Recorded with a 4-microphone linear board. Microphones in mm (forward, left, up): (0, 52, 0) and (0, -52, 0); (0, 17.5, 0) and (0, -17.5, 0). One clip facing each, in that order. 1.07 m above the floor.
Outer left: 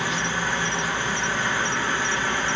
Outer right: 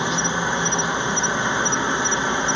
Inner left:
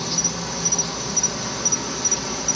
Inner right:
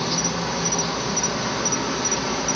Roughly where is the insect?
Right.